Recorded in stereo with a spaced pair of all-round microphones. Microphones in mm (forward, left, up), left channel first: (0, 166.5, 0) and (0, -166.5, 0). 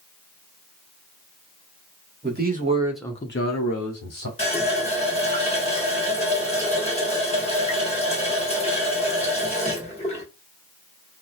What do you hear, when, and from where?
2.2 s a man speaking: 35° right (ahead or behind), 1.1 m; by 4.3 s 65° left (ahead or behind), 1.2 m
4.4 s a running tap: 20° left (ahead or behind), 1.1 m